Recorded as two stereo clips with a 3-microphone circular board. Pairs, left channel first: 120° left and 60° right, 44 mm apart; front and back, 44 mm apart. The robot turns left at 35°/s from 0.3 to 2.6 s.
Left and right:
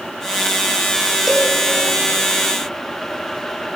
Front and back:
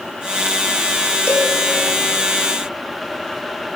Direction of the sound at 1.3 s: 20° left.